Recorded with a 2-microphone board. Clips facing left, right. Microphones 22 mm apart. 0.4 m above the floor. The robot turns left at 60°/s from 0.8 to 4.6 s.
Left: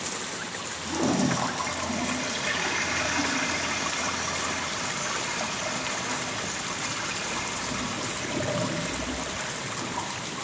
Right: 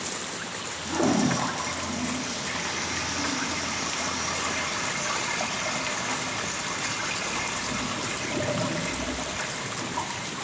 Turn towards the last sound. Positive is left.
turn(degrees=-10)